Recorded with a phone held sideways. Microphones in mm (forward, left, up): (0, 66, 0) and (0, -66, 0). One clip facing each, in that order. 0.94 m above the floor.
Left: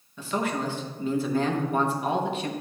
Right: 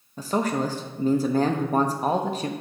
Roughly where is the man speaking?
Right.